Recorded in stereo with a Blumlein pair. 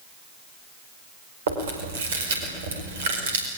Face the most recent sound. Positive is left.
turn(degrees=-60)